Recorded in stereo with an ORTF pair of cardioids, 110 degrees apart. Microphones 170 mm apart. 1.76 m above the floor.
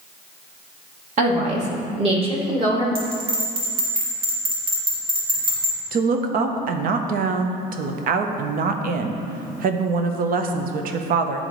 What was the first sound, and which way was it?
A woman speaking, 50° right.